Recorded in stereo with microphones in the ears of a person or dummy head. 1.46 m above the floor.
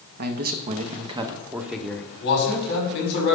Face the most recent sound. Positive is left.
turn(degrees=65)  # may be behind; listen again after turning